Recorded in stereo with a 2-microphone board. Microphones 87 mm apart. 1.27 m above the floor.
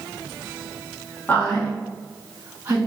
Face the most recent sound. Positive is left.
turn(degrees=-20)  # may be behind; listen again after turning